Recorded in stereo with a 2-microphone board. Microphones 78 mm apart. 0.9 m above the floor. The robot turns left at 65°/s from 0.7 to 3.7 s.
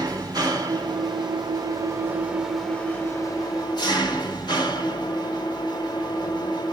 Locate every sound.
0.0 s an engine running: 60° right, 3 m; by 6.7 s 105° left, 3 m